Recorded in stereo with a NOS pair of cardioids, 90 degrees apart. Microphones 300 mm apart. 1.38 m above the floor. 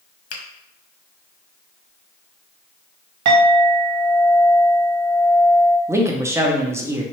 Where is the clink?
70° right, 1.2 m.